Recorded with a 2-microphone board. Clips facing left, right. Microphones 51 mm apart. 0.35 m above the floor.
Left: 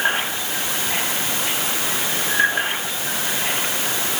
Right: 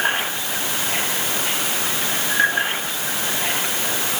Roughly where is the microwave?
I don't hear a microwave.